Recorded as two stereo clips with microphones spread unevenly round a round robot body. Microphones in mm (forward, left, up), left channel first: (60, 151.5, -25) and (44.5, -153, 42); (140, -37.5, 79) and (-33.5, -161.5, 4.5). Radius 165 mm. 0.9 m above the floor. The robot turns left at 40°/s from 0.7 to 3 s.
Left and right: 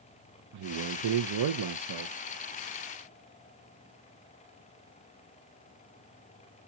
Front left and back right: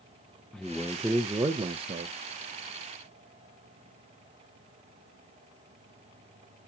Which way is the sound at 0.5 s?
70° right.